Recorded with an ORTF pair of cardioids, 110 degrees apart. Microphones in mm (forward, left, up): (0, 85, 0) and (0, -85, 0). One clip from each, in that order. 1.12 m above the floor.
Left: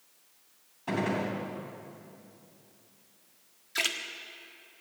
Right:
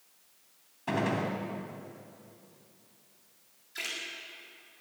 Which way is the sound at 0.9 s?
15° right.